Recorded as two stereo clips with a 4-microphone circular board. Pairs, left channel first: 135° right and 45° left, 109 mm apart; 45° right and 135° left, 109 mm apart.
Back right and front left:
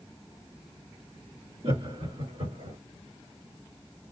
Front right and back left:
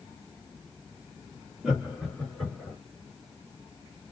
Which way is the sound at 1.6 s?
50° left.